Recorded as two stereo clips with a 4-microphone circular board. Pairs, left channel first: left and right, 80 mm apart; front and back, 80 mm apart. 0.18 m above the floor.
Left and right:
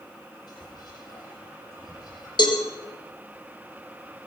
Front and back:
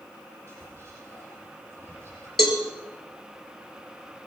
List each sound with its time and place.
0.5 s whispering: 60° left, 7 m
2.4 s a cowbell: 90° left, 3.5 m